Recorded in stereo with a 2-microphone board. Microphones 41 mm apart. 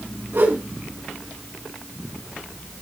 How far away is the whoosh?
About 5 m.